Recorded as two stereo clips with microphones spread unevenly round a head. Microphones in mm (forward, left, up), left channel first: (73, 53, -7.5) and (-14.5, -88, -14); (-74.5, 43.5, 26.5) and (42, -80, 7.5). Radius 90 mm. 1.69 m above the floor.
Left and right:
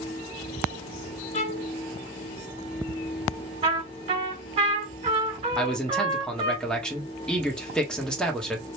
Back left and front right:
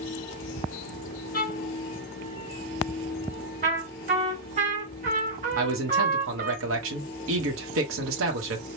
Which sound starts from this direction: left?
A violin, at 1.3 s.